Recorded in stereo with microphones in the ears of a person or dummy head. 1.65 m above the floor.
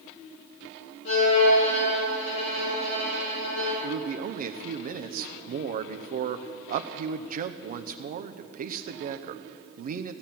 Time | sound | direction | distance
1.1 | a violin | 70° left (ahead or behind) | 5.5 m
3.8 | a man speaking | 45° right (ahead or behind) | 0.7 m